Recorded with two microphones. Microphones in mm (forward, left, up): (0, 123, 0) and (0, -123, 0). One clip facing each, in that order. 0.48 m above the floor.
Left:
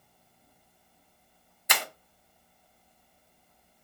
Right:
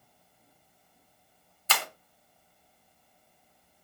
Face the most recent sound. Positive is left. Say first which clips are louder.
# even
turn(degrees=15)  # may be behind; listen again after turning